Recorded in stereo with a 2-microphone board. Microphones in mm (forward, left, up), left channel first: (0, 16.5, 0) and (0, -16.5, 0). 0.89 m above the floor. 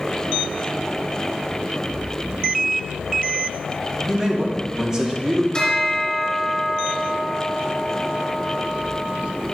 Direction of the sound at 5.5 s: 25° left (ahead or behind).